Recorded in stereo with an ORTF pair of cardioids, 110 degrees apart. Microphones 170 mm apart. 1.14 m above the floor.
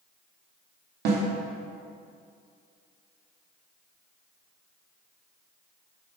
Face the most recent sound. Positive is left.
turn(degrees=-70)